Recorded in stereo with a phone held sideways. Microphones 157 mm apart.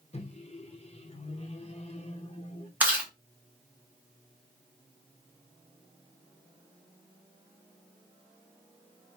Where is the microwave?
40° left (ahead or behind), 0.6 m.